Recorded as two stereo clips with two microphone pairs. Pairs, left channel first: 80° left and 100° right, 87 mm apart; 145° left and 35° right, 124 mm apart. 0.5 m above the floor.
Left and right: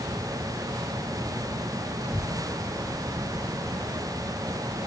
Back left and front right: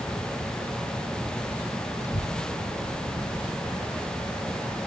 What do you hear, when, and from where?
2.0 s a child speaking: 130° left; by 4.8 s 140° left